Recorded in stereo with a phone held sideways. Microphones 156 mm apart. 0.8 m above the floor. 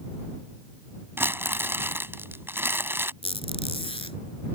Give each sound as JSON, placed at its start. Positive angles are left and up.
{"t": 1.2, "sound": "crumpling", "side_deg": -15}
{"t": 3.2, "sound": "a squeak", "side_deg": 35}